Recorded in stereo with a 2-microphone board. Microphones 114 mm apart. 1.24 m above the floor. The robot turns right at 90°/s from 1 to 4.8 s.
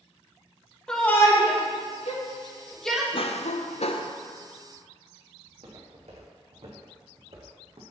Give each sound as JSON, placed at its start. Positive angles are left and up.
{"t": 0.9, "sound": "a shout", "side_deg": 5, "distance_m": 2.0}
{"t": 3.1, "sound": "a cough", "azimuth_deg": 50, "distance_m": 0.8}
{"t": 5.5, "sound": "footsteps", "side_deg": -70, "distance_m": 4.0}